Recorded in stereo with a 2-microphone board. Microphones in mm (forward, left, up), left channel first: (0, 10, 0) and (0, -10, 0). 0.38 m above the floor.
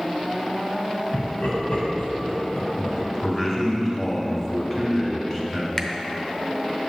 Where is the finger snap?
20° left (ahead or behind), 0.7 m.